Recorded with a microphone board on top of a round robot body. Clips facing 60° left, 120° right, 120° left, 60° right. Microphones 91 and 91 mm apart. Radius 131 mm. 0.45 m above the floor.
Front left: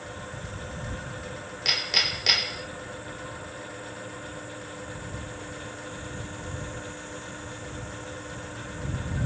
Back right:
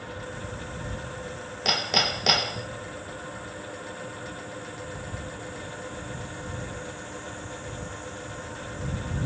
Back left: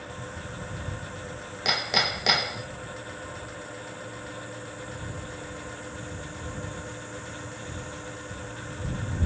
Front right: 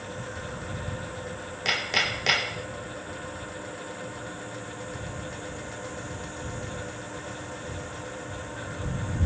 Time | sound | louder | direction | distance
1.6 | hammering | back right 6 dB, back left 2 dB | 170° right | ?